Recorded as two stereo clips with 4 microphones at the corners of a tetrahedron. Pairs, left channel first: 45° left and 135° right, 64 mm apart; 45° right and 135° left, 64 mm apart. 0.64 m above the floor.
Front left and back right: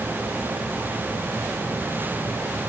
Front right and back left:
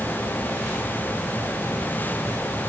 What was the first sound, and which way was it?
Only background noise.